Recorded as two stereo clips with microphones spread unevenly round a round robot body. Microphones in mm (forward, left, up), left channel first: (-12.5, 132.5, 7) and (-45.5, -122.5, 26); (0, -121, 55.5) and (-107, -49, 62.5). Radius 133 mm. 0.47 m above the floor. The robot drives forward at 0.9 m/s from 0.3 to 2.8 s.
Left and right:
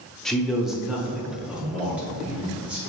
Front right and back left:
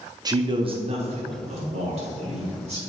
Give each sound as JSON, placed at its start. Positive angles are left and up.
{"t": 0.2, "sound": "a man speaking", "azimuth_deg": 160, "distance_m": 0.8}